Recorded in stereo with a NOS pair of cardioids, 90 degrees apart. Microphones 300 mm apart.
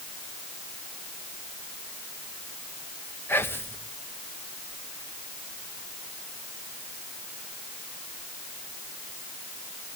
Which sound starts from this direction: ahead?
Whispering, at 3.3 s.